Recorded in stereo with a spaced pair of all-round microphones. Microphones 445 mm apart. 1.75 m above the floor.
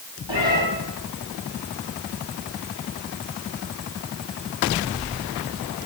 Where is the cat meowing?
60° left (ahead or behind), 4.5 m.